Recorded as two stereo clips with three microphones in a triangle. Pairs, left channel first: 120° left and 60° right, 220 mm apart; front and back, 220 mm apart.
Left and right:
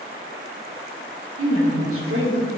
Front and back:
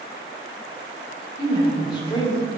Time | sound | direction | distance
1.4 | a woman speaking | 70° right | 3 m